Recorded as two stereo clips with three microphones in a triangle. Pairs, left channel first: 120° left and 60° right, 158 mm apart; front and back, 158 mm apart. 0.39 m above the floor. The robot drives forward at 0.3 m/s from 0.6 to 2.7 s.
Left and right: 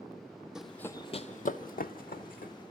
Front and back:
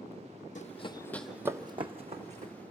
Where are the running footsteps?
25° left, 0.8 m; by 2.5 s 145° left, 1.4 m.